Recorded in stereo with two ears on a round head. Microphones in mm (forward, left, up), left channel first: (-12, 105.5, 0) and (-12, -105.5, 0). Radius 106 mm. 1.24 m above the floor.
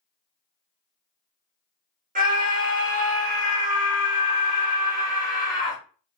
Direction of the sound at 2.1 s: 40° right (ahead or behind).